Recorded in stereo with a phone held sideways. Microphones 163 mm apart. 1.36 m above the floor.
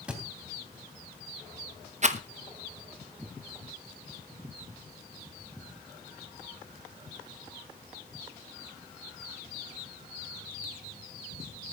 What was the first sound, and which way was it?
A thud, 5° right (ahead or behind).